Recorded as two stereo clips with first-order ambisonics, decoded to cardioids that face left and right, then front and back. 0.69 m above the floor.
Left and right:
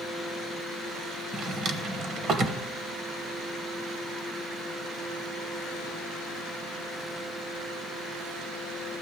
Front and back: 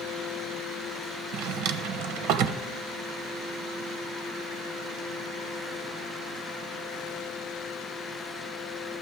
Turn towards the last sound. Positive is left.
turn(degrees=-150)